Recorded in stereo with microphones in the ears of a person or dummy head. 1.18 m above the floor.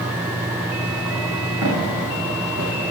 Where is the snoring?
I don't hear snoring.